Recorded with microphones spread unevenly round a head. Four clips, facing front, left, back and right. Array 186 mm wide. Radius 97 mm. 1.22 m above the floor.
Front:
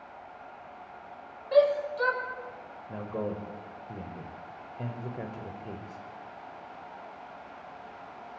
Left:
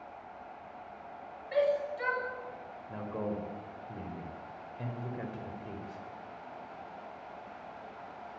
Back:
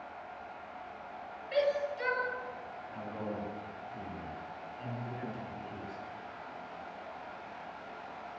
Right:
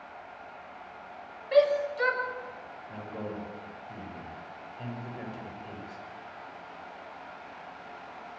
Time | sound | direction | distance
1.5 | a shout | 45° right | 8 m
2.9 | a man speaking | 5° left | 5 m